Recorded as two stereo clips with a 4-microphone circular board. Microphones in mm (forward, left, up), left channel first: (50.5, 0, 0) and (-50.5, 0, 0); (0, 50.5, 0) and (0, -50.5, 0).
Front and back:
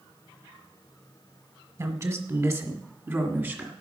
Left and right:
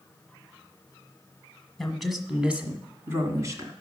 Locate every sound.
1.8 s a woman speaking: 170° left, 1.4 m; by 3.7 s 120° right, 1.6 m